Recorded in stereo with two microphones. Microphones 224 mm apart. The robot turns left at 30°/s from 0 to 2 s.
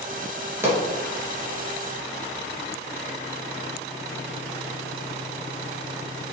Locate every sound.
0.6 s a pop: 10° right (ahead or behind), 3 m; by 0.8 s 5° right (ahead or behind), 3 m